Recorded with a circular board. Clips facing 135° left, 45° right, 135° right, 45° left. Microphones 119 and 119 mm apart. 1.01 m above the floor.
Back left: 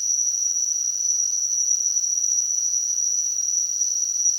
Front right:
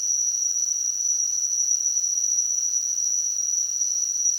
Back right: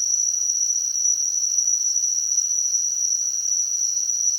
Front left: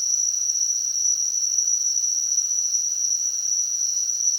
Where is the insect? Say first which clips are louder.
Back left 1 dB, back right 1 dB; 85° right, 2 m.